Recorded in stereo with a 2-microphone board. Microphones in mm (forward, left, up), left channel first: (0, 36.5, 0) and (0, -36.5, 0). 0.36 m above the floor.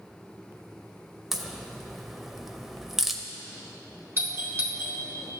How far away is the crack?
About 0.6 m.